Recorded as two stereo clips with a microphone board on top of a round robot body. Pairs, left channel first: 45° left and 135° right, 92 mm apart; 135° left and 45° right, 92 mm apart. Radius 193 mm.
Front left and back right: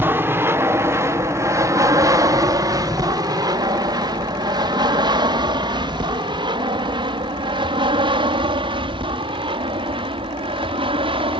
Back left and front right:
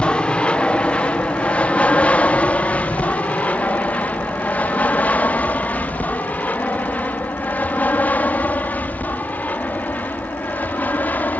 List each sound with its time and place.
0.0 s an aircraft: 160° right; by 11.4 s 155° right